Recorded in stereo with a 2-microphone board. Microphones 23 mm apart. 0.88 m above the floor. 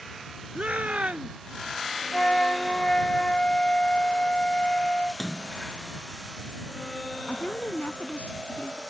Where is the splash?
25° left (ahead or behind).